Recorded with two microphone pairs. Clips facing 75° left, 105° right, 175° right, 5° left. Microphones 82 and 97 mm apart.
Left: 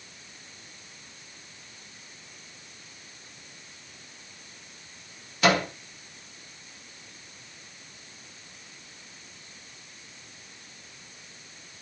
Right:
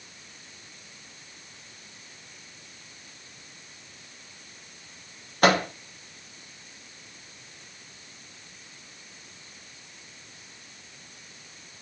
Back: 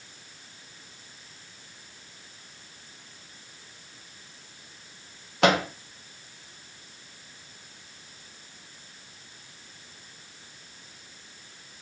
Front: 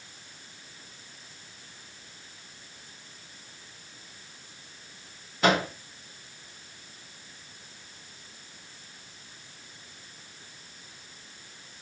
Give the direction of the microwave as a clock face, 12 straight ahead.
5 o'clock.